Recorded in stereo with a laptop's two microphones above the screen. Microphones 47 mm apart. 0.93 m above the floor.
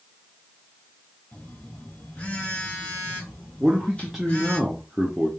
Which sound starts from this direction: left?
A phone buzzing, at 1.3 s.